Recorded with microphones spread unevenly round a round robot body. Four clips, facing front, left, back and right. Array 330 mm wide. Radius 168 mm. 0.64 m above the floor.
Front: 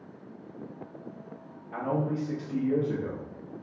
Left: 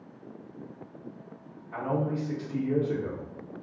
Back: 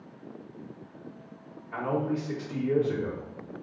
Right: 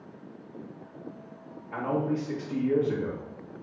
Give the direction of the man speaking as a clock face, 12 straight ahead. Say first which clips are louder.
Right 1 dB, back 1 dB; 2 o'clock.